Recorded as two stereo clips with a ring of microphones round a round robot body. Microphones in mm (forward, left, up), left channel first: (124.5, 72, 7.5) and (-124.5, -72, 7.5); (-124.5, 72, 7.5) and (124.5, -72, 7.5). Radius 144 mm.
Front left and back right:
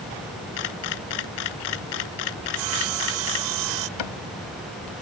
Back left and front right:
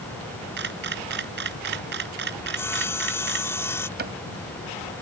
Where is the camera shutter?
25° left.